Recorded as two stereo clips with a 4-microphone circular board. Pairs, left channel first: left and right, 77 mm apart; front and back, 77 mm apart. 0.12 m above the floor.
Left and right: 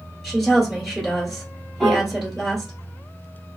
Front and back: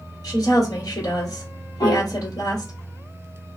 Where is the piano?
Straight ahead, 2.0 m.